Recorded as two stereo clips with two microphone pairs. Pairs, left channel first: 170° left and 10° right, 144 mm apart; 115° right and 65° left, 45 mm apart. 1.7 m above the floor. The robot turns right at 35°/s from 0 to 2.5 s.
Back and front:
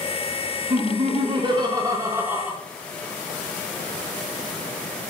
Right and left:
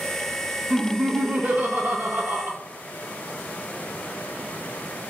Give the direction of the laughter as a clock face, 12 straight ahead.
12 o'clock.